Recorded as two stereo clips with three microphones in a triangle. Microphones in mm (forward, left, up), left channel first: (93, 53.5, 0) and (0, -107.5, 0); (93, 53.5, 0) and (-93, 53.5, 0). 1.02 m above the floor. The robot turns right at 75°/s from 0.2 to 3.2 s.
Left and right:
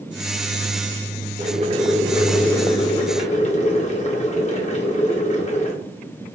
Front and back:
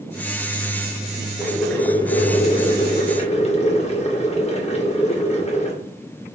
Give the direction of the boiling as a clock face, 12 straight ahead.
3 o'clock.